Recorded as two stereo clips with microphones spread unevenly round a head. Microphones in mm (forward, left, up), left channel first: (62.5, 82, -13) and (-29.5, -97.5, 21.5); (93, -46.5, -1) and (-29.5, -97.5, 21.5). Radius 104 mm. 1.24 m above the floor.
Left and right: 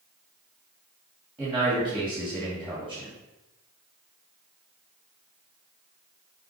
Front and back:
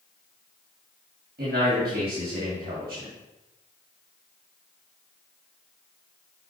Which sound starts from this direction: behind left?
A man speaking, at 1.4 s.